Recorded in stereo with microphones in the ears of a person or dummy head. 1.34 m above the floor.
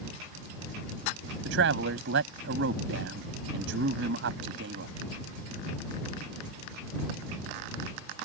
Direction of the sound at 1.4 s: 60° right (ahead or behind).